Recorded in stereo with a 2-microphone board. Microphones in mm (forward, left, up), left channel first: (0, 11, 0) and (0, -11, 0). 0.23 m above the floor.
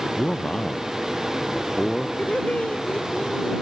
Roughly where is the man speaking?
Left.